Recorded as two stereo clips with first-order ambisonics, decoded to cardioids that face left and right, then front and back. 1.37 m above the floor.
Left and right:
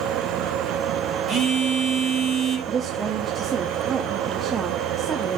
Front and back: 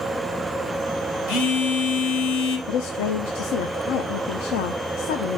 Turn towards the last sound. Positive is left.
turn(degrees=-15)